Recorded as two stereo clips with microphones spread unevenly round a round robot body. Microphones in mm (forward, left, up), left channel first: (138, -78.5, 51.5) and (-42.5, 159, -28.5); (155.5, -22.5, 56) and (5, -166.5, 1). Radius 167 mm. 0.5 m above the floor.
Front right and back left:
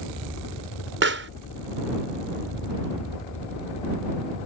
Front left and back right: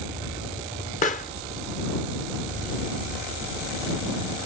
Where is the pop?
105° left.